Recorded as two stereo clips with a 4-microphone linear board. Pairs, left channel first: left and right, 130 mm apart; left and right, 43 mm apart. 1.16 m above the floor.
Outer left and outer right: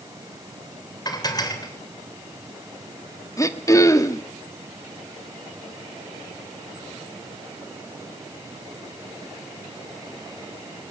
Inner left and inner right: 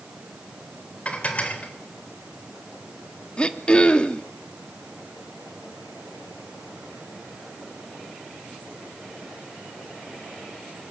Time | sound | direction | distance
1.1 | dishes clattering | 30° left (ahead or behind) | 3.5 m
3.4 | throat clearing | 25° left (ahead or behind) | 1.2 m